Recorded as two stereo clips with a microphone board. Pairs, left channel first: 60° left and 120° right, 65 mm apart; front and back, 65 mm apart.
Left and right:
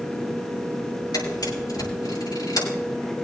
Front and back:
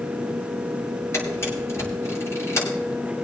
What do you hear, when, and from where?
1.1 s a camera shutter: 50° left, 6.5 m